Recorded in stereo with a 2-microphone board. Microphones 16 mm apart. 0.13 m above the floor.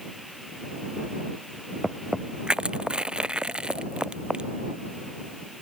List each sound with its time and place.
2.5 s crushing: 70° right (ahead or behind)